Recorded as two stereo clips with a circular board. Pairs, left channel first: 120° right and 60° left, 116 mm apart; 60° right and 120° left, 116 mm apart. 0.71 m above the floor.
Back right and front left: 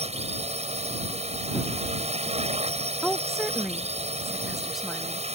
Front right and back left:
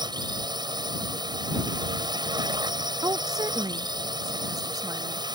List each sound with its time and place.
0.0 s a drone: 70° left
3.0 s a woman speaking: 150° left